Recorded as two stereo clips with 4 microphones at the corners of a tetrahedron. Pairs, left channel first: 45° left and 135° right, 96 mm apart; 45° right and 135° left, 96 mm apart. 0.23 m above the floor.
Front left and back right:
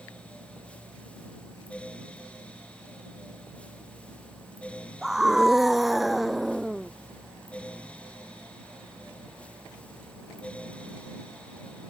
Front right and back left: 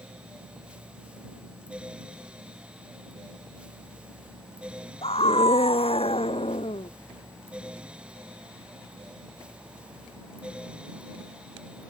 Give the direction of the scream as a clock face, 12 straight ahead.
2 o'clock.